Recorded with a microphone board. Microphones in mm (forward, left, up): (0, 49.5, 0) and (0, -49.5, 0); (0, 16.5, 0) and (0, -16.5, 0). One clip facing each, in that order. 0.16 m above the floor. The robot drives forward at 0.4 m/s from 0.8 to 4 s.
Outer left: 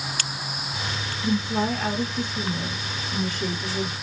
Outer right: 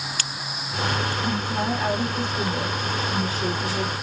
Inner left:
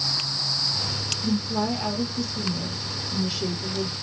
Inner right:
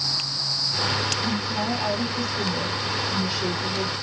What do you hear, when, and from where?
1.2 s a woman speaking: 10° right (ahead or behind), 1.1 m; by 3.9 s 5° right (ahead or behind), 1.8 m